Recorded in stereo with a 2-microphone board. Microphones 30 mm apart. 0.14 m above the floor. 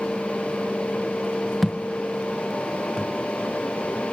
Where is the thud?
5° right (ahead or behind), 1.0 m.